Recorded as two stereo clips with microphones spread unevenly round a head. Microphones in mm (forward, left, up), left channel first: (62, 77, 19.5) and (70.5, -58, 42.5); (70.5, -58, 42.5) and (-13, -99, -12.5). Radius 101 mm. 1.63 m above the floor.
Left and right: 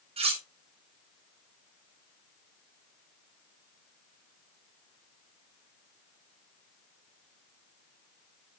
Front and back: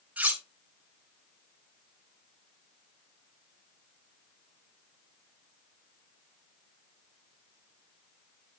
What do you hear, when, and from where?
0.2 s cutlery clinking: 60° right, 1.4 m